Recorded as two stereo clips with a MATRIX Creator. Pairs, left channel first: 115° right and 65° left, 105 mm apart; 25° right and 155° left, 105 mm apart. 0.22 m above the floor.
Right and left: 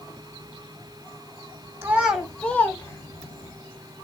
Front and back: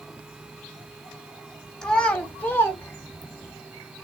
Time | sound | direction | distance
1.8 | a child speaking | 50° left | 0.8 m